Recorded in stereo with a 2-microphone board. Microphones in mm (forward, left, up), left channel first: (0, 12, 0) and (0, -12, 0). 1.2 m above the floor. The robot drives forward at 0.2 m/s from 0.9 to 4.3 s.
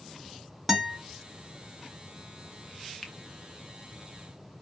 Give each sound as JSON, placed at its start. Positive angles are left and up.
{"t": 0.7, "sound": "a guitar", "side_deg": -10, "distance_m": 1.3}
{"t": 3.0, "sound": "a finger snap", "side_deg": 25, "distance_m": 0.7}